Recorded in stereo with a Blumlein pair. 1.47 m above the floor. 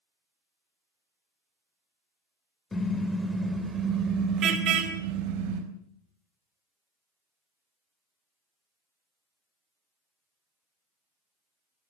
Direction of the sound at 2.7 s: 10° left.